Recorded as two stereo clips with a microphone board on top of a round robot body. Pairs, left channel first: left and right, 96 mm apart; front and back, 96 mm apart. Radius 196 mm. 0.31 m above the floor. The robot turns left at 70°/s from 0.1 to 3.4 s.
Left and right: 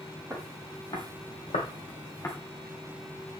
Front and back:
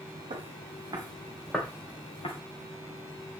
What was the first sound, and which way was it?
Footsteps, 170° right.